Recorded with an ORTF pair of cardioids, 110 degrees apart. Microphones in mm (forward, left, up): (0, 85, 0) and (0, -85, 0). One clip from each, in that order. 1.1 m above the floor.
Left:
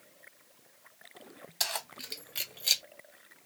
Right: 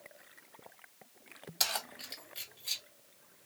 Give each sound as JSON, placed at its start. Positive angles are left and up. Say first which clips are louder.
{"t": 1.6, "sound": "keys jangling", "louder": "even", "azimuth_deg": -5, "distance_m": 0.8}